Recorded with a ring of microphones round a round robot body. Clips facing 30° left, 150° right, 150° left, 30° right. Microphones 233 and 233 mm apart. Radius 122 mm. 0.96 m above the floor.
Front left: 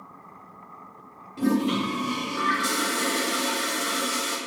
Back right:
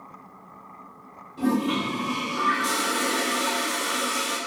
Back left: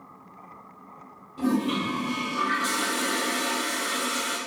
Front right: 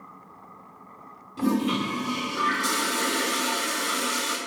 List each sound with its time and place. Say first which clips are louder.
1.4 s a toilet flushing: front left 1 dB, front right 1 dB; 25° right, 1.7 m